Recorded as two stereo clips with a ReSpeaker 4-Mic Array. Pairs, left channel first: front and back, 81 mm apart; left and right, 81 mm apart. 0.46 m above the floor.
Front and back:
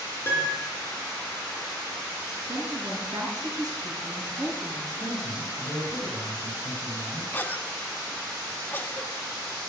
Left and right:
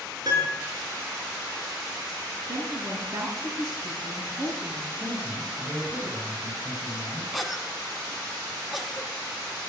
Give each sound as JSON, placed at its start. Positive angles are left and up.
{"t": 0.2, "sound": "a piano", "azimuth_deg": -55, "distance_m": 5.5}
{"t": 2.5, "sound": "a woman speaking", "azimuth_deg": -135, "distance_m": 7.0}
{"t": 5.0, "sound": "a man speaking", "azimuth_deg": -30, "distance_m": 5.0}
{"t": 7.3, "sound": "a cough", "azimuth_deg": 0, "distance_m": 1.3}